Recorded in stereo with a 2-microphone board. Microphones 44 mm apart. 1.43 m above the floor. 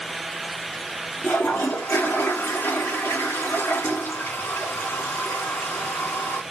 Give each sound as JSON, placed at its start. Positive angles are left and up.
{"t": 1.2, "sound": "a toilet flushing", "side_deg": 55, "distance_m": 2.5}